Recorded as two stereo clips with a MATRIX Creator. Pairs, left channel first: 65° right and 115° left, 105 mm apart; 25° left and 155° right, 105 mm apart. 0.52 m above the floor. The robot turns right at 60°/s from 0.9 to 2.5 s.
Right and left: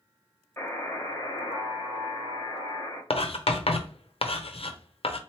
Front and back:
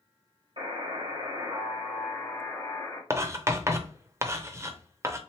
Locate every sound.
0.6 s a buzzer: 140° right, 2 m; by 3.0 s 40° right, 2 m
3.1 s writing: 95° right, 0.5 m